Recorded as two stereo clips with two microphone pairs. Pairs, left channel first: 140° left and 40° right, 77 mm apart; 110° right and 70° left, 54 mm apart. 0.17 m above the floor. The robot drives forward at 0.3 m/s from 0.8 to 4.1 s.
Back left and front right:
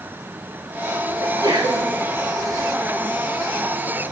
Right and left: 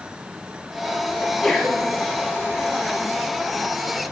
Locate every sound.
1.2 s a sneeze: 25° right, 2.5 m